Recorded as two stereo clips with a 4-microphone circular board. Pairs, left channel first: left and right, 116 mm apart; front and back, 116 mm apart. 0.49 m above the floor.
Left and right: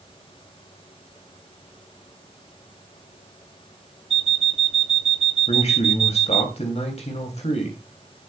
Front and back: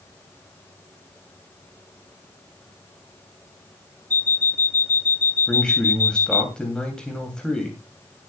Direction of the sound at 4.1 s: 70° right.